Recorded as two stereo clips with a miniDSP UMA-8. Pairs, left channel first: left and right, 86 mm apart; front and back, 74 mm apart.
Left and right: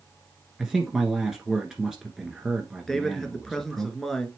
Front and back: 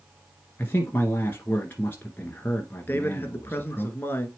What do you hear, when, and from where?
0.6 s a man speaking: 15° right, 1.3 m
2.9 s a man speaking: 10° left, 1.2 m